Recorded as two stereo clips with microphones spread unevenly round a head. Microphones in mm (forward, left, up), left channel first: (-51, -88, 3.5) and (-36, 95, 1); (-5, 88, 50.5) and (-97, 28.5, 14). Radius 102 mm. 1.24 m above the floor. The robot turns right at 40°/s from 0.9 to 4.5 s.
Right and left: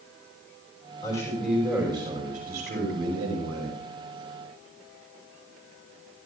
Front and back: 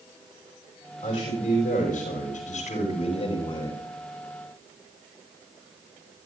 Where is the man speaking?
25° right, 6 m; by 3.8 s 85° left, 6 m.